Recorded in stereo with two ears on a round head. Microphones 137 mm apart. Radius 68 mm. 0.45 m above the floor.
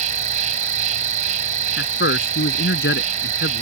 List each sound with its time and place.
0.0 s an insect: 50° right (ahead or behind)
1.8 s a man speaking: 75° left (ahead or behind)